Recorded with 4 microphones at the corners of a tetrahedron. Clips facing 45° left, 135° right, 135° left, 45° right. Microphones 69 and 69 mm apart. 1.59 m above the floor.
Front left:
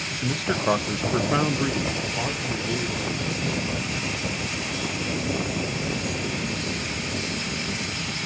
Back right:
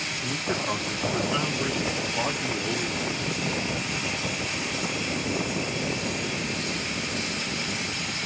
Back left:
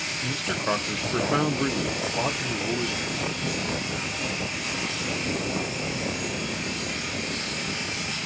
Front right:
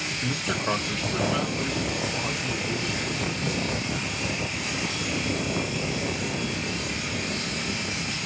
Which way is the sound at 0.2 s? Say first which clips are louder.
Front left 5 dB, even; 35° left.